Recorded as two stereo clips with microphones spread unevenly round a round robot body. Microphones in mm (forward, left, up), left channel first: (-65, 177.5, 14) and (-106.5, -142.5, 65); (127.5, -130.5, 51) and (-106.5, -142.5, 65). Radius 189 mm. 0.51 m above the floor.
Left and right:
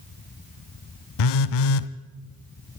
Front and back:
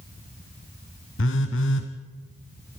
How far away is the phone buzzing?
About 0.6 m.